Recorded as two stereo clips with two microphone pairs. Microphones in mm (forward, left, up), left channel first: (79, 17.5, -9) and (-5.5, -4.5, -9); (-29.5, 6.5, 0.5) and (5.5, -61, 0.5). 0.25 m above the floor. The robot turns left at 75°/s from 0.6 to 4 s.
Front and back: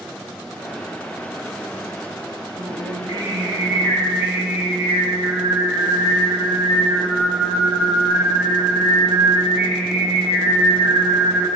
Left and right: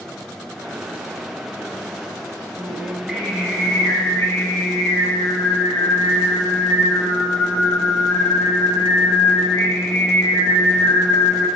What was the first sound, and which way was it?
Singing, 100° right.